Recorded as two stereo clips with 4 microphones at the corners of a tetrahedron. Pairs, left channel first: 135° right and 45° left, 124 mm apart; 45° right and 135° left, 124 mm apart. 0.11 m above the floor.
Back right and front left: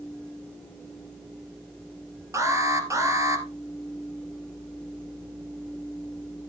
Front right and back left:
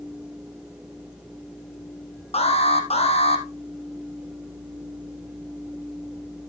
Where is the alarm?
20° right, 2 m.